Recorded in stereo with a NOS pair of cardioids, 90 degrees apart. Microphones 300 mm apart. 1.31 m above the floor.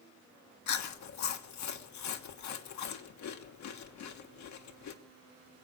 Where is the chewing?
70° left, 1.4 m.